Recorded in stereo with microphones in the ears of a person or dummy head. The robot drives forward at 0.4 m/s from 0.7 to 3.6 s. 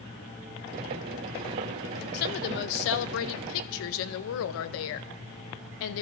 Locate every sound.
2.1 s a woman speaking: 55° left (ahead or behind), 0.9 m; by 6.0 s 70° left (ahead or behind), 0.7 m